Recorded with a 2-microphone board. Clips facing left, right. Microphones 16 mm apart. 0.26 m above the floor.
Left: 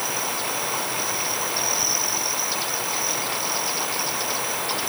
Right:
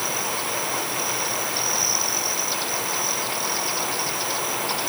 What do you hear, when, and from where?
Only background noise.